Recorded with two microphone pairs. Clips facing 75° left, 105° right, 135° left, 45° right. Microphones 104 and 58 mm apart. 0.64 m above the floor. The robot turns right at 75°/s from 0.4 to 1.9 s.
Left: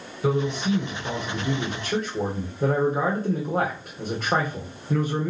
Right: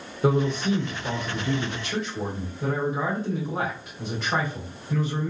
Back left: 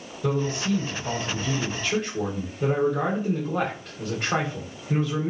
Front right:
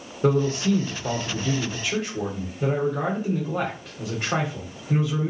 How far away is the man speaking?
About 2.5 m.